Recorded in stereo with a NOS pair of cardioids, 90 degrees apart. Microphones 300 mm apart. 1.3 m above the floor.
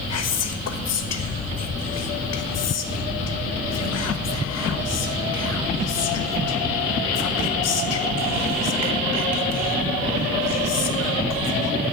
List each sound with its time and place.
0.1 s whispering: 60° left, 1.4 m